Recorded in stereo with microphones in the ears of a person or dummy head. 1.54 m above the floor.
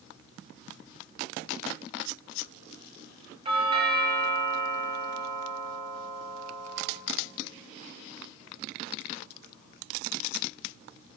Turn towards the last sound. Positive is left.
turn(degrees=-25)  # may be behind; listen again after turning